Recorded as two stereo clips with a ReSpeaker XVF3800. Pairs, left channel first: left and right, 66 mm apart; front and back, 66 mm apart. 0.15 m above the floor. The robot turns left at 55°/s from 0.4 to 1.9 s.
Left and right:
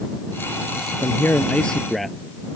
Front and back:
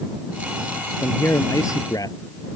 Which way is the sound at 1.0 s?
50° left.